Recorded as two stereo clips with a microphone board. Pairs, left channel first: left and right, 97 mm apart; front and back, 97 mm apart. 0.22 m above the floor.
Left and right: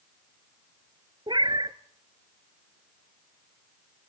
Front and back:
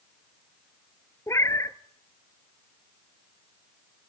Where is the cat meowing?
55° right, 0.9 m.